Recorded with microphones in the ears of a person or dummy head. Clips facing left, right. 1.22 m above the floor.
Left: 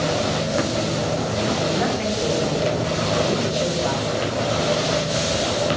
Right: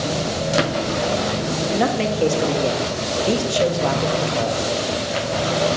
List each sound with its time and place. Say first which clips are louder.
1.7 s a man speaking: right 3 dB; 55° right (ahead or behind), 2 m